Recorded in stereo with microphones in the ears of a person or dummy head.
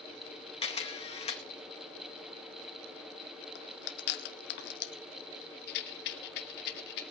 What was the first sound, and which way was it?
A camera shutter, 30° left (ahead or behind).